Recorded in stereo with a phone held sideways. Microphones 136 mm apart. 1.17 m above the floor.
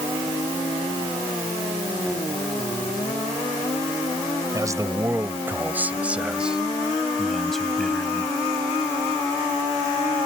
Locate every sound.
4.5 s a man speaking: 25° right (ahead or behind); by 8.3 s 5° left (ahead or behind)